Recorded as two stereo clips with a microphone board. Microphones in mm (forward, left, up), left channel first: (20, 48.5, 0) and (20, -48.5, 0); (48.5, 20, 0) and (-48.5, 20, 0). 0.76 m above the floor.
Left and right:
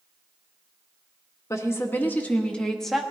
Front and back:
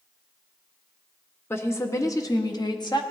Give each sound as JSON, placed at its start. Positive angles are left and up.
{"t": 1.5, "sound": "a woman speaking", "azimuth_deg": 50, "distance_m": 1.2}